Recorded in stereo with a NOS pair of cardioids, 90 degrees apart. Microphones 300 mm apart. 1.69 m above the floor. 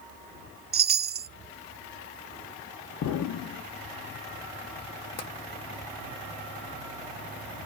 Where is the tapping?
60° left, 0.9 m.